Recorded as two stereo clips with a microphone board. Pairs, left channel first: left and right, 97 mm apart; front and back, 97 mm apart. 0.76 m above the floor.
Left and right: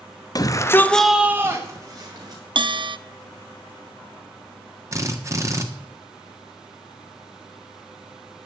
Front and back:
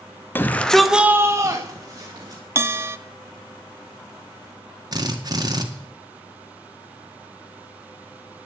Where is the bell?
120° right, 0.5 m.